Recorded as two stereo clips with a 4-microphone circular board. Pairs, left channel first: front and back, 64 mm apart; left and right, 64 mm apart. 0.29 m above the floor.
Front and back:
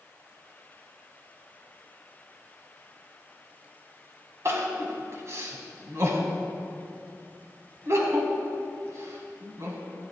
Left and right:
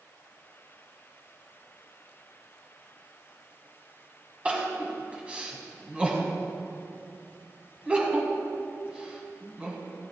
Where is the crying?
155° right, 2 m.